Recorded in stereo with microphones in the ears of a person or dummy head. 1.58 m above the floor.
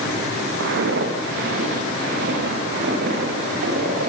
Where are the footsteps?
70° right (ahead or behind), 6 m; by 4.1 s 55° right (ahead or behind), 9.5 m.